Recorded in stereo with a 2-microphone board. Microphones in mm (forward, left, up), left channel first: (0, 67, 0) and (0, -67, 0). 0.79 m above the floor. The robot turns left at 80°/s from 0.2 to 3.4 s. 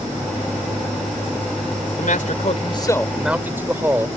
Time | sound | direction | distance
2.0 | a man speaking | 100° left | ?